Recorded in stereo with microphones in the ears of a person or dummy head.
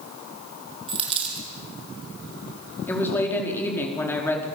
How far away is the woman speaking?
About 4 m.